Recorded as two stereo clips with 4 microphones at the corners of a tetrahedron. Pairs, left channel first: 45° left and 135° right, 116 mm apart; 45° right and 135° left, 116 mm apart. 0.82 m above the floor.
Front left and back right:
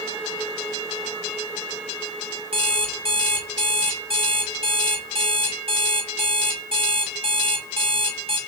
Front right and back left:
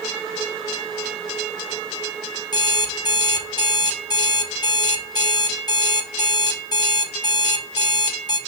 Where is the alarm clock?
100° right, 0.7 m.